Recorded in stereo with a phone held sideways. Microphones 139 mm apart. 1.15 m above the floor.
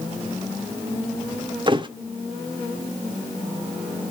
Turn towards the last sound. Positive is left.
turn(degrees=-35)  # may be behind; listen again after turning